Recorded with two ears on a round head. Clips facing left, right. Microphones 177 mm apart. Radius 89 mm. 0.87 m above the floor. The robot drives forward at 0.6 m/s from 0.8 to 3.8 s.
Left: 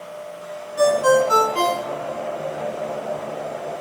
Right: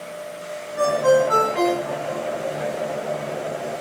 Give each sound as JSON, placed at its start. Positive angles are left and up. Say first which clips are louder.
{"t": 0.8, "sound": "a ringtone", "louder": "left 1 dB", "side_deg": 50, "distance_m": 4.5}